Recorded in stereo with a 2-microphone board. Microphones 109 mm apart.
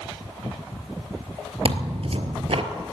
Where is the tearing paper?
60° right (ahead or behind), 1.1 m.